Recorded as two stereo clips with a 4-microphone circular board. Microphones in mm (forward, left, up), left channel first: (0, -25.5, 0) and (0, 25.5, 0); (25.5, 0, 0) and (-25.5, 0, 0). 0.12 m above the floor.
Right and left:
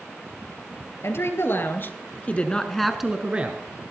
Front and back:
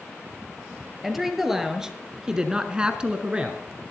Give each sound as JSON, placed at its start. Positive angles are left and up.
{"t": 1.0, "sound": "a woman speaking", "azimuth_deg": -95, "distance_m": 3.0}